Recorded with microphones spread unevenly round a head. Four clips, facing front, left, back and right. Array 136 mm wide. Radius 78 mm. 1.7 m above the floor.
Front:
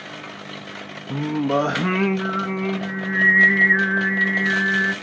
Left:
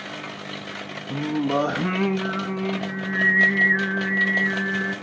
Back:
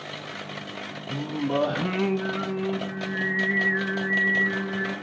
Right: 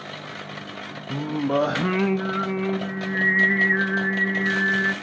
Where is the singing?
40° right, 1.3 m.